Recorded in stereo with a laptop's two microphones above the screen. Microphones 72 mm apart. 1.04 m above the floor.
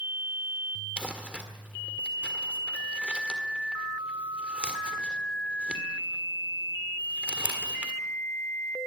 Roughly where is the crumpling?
Centre.